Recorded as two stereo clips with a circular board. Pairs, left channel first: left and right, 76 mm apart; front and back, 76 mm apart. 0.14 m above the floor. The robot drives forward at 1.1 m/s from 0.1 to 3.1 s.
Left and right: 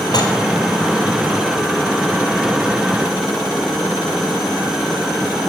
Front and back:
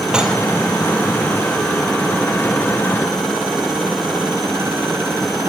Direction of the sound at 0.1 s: 100° left.